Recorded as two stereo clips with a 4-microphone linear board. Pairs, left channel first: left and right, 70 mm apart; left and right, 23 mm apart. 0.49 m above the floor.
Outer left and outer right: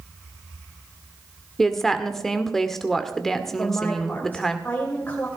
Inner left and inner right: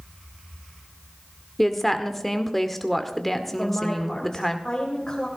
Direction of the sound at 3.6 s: 25° left (ahead or behind).